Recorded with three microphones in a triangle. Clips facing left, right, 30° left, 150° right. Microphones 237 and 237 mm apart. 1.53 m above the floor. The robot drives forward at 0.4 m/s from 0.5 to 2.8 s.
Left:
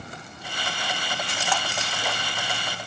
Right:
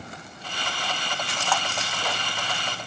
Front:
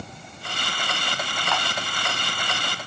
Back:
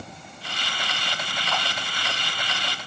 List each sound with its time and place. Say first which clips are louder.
1.5 s a camera shutter: right 1 dB, front 2 dB; 20° left, 0.7 m